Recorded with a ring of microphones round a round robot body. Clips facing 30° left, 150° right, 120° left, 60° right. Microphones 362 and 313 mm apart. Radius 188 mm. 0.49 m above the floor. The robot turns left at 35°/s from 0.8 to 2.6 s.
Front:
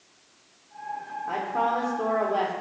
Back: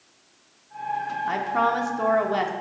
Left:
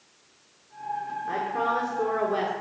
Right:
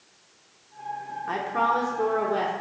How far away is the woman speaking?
About 1.2 m.